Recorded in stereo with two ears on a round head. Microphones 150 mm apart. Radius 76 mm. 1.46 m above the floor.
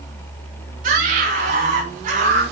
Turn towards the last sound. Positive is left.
turn(degrees=-50)  # may be behind; listen again after turning